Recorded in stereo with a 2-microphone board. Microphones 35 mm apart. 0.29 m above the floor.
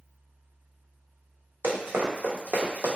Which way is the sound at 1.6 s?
80° right.